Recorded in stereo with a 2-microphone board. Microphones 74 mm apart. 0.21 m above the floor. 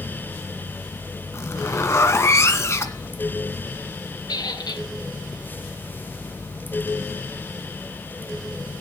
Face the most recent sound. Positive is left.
turn(degrees=70)  # may be behind; listen again after turning